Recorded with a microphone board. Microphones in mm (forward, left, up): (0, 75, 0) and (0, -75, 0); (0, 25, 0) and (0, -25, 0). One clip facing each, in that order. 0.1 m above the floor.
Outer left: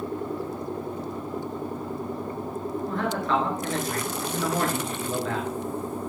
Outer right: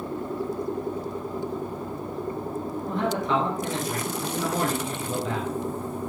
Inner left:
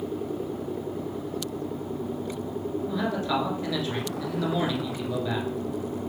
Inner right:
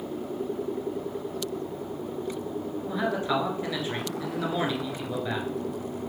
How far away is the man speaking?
About 1.5 m.